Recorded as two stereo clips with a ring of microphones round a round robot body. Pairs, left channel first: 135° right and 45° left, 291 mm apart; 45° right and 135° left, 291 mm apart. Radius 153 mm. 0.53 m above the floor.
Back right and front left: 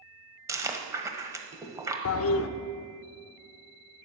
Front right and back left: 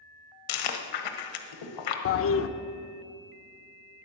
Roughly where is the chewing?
Ahead right.